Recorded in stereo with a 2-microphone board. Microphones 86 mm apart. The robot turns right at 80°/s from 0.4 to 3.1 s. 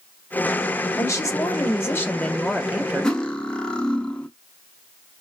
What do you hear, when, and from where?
1.0 s a woman speaking: 55° left, 0.8 m; by 3.2 s 135° right, 0.8 m
3.0 s cutlery clinking: 10° left (ahead or behind), 0.5 m